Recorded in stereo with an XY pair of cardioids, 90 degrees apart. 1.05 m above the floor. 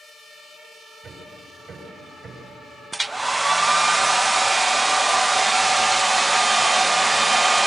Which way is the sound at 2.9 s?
15° right.